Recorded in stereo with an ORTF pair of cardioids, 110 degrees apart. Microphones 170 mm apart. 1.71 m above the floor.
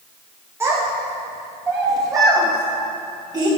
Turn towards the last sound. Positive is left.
turn(degrees=-25)